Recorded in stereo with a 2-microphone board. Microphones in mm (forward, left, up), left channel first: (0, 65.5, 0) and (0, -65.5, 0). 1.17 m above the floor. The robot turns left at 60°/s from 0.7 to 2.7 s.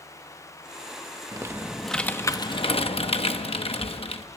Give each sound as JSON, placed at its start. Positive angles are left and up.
{"t": 1.3, "sound": "typing on a keyboard", "azimuth_deg": -150, "distance_m": 0.8}